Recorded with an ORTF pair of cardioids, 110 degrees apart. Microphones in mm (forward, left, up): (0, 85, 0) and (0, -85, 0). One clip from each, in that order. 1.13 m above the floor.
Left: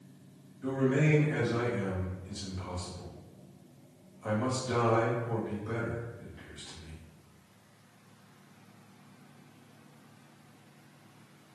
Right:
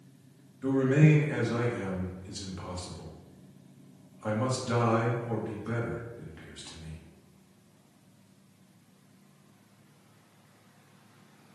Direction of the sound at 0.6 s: 35° right.